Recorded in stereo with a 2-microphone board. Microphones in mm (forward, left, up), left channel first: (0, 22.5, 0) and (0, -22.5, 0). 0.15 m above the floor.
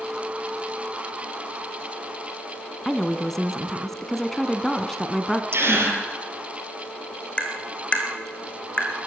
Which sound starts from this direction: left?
Tapping, at 7.4 s.